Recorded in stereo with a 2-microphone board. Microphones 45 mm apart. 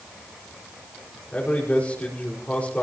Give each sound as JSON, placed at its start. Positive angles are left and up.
{"t": 1.3, "sound": "a man speaking", "side_deg": 35, "distance_m": 5.0}